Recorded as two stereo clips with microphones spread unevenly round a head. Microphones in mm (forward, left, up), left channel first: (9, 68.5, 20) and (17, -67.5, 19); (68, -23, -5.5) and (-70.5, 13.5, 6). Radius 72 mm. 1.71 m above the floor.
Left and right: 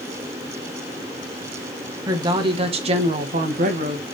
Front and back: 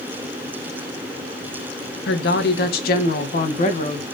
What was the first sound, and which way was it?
A woman speaking, 25° right.